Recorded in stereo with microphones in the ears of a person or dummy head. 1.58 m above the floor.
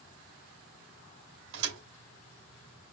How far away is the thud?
About 3 m.